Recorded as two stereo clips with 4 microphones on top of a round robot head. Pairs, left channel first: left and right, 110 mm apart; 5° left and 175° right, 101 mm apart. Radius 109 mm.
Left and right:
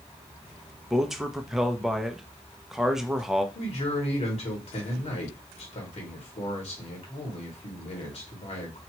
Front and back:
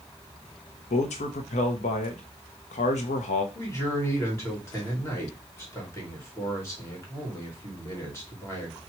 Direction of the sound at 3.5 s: 65° left.